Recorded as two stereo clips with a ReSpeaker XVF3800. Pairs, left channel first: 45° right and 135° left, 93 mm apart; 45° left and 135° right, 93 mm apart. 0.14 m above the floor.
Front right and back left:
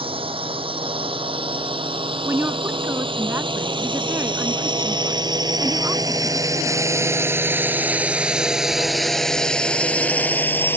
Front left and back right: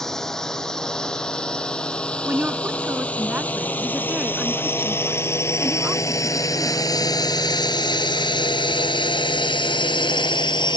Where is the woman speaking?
170° left.